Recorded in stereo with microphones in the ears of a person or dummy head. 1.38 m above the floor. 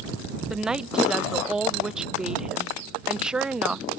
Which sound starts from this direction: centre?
A woman speaking, at 0.5 s.